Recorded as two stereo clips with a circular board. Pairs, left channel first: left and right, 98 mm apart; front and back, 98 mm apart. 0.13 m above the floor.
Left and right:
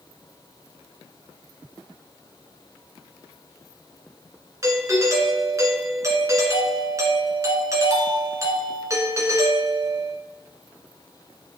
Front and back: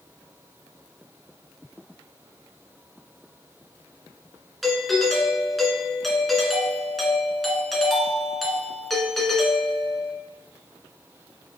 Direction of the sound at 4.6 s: 90° right.